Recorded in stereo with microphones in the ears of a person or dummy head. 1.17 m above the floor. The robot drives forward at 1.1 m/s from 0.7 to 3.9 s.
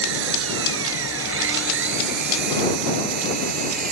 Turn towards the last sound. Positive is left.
turn(degrees=-60)  # may be behind; listen again after turning